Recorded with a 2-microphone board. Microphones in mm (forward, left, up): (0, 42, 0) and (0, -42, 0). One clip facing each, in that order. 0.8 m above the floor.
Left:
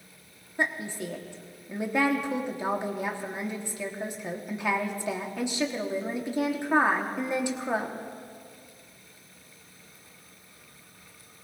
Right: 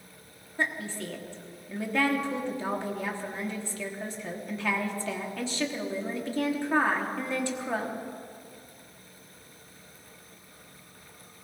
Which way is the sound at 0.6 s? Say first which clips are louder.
Left 1 dB; 15° left (ahead or behind).